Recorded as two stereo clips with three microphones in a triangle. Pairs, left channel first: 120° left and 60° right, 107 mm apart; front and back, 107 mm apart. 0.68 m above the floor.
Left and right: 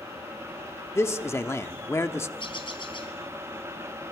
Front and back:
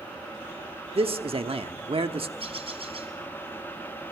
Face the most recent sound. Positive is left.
turn(degrees=155)